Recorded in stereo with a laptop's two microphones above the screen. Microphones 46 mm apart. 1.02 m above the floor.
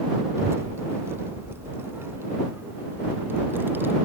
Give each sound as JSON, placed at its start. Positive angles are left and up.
{"t": 0.4, "sound": "a child speaking", "side_deg": -75}